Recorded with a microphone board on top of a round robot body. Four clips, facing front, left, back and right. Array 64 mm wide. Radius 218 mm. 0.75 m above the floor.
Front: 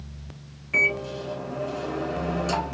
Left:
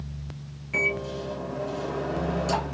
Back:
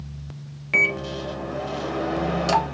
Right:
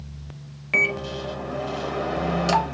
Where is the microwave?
130° right, 1.1 m.